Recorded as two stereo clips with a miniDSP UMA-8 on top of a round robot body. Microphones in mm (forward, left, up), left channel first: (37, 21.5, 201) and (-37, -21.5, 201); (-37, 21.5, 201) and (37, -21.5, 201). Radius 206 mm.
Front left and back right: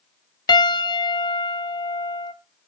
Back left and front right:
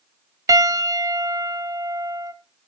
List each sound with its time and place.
0.5 s a piano: 10° left, 0.6 m